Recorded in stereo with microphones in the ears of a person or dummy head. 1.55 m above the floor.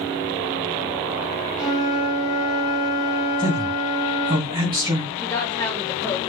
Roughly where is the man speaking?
Right.